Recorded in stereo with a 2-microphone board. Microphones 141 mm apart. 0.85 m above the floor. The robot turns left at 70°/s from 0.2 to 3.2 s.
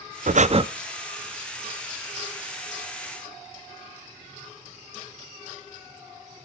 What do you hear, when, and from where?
0.3 s breathing: 65° right (ahead or behind), 0.5 m; by 0.6 s 40° right (ahead or behind), 0.5 m